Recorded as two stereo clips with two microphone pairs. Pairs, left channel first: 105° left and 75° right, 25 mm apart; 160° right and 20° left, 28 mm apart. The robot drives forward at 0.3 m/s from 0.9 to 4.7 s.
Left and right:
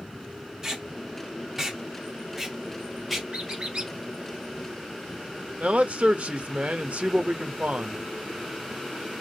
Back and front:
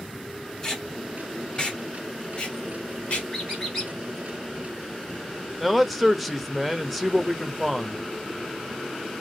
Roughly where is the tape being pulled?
Right.